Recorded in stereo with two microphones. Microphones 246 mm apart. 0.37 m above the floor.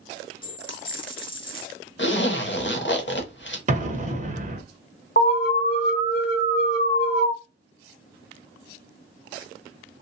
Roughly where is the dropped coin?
Centre.